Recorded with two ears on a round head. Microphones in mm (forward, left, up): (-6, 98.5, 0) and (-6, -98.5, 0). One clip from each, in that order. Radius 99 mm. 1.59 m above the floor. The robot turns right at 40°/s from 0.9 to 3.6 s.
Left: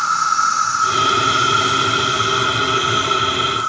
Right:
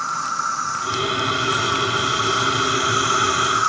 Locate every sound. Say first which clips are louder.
0.0 s an insect: left 7 dB; 125° left, 1.0 m; by 3.7 s 125° right, 1.0 m